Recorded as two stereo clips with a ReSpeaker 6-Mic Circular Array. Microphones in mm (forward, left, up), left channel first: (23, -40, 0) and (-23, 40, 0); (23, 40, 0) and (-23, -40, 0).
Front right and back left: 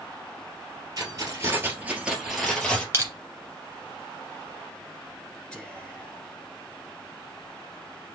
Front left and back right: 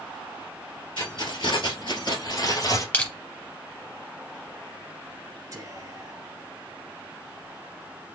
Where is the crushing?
110° left, 1.8 m.